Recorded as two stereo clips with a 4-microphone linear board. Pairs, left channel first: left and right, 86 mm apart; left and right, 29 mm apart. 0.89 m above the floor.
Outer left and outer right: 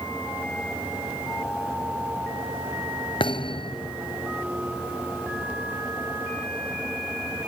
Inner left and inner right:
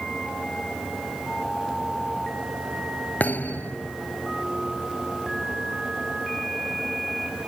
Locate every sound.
3.2 s a thud: 80° left